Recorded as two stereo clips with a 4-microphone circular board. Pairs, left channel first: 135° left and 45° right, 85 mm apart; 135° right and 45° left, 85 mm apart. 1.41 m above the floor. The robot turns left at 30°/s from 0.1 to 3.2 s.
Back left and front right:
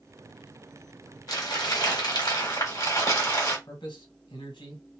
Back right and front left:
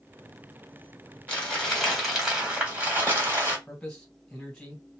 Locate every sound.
1.3 s crumpling: 155° left, 1.6 m; by 3.6 s 95° left, 1.6 m
3.7 s a man speaking: 140° left, 1.4 m